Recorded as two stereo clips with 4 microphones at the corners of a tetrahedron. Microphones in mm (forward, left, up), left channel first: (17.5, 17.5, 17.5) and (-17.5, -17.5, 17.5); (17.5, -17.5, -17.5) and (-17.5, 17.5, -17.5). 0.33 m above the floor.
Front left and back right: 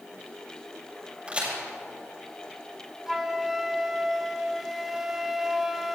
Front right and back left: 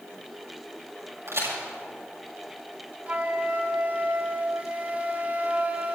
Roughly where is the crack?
Behind left.